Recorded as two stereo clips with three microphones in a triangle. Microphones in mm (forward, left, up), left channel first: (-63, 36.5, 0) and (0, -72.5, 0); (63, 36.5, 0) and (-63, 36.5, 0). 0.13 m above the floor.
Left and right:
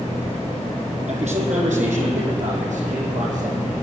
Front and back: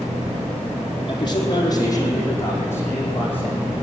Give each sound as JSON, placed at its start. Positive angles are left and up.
{"t": 1.1, "sound": "a man speaking", "azimuth_deg": -45, "distance_m": 4.0}